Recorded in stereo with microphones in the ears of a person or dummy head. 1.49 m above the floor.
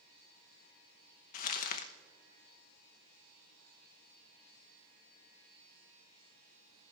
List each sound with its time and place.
1.3 s crumpling: 50° left (ahead or behind), 1.0 m